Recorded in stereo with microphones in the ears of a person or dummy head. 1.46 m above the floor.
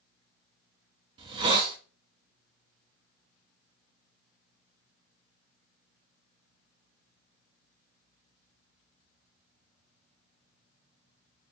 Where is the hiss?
30° right (ahead or behind), 0.5 m.